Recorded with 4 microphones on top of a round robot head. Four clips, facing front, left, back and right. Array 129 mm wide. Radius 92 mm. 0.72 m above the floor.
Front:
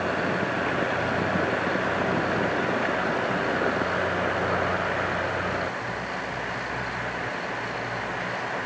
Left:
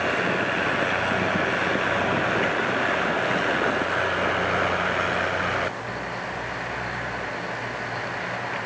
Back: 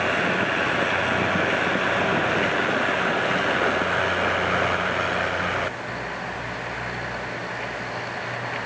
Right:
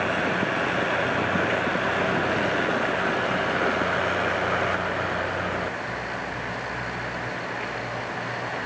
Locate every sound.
Only background noise.